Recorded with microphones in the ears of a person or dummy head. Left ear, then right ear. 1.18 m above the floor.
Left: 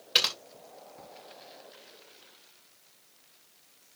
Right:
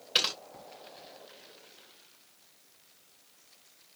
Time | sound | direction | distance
0.1 | typing on a keyboard | 10° left (ahead or behind) | 2.5 m